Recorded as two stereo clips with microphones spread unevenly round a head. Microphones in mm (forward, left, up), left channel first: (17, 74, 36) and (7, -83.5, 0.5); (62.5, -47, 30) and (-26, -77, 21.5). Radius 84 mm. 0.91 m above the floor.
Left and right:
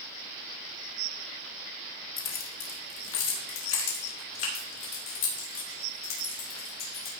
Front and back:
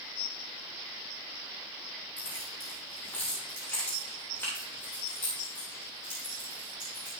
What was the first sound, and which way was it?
Keys jangling, 95° left.